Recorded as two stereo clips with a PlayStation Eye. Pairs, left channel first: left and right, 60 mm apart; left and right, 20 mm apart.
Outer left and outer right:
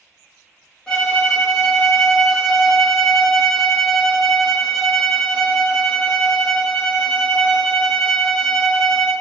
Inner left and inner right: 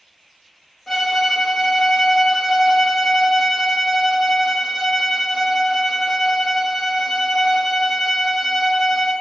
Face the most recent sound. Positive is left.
turn(degrees=10)  # may be behind; listen again after turning